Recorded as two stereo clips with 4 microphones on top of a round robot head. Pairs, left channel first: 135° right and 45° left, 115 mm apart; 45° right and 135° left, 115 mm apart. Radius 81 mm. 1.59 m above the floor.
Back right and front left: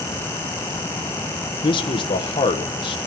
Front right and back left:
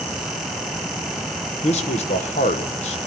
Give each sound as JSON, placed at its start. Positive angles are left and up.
{"t": 1.6, "sound": "a man speaking", "azimuth_deg": -85, "distance_m": 1.0}